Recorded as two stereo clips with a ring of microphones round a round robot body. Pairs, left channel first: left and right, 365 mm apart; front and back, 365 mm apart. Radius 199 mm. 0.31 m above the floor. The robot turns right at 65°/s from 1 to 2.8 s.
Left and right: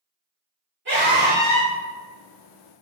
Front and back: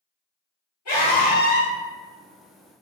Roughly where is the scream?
Ahead right.